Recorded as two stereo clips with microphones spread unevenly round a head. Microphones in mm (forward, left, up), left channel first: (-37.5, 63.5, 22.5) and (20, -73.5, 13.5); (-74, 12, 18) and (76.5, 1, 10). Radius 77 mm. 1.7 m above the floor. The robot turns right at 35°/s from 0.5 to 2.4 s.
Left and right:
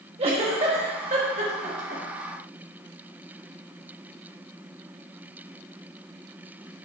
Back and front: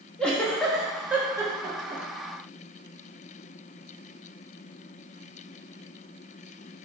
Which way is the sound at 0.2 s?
105° right.